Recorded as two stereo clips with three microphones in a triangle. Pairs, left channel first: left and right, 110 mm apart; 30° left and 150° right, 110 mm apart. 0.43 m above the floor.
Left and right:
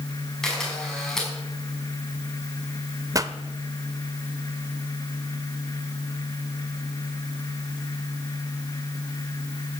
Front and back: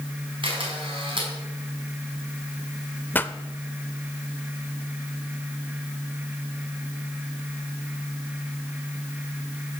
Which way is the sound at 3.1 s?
40° right.